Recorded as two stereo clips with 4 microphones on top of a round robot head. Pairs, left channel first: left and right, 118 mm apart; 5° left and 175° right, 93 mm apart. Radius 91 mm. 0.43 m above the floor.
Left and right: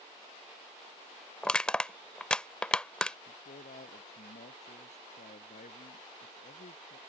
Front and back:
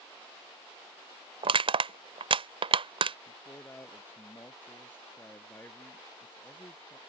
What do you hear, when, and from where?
1.4 s crushing: 175° left
3.3 s a man speaking: 70° left